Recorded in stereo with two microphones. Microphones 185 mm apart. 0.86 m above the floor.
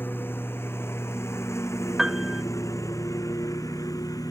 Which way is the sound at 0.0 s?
10° left (ahead or behind).